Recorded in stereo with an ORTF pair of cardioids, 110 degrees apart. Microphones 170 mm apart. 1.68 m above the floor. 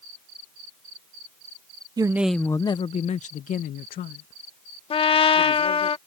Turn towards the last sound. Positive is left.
turn(degrees=35)